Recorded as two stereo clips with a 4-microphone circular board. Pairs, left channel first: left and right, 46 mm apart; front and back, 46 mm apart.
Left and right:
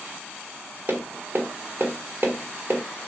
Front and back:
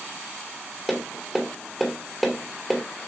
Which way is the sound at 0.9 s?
95° right.